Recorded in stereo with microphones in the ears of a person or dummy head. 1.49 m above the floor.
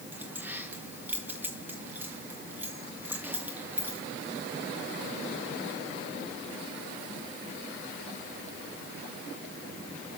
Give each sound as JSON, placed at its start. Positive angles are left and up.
{"t": 0.1, "sound": "keys jangling", "side_deg": -10, "distance_m": 1.0}